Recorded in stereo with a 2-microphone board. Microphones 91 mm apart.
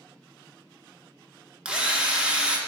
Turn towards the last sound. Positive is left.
turn(degrees=-10)  # may be behind; listen again after turning